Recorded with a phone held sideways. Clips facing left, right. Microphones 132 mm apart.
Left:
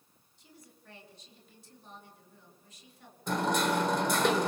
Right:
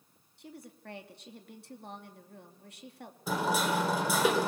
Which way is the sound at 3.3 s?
5° right (ahead or behind).